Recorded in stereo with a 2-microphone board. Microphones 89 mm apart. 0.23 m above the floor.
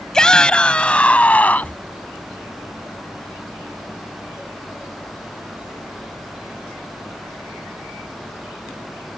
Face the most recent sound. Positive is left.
turn(degrees=20)  # may be behind; listen again after turning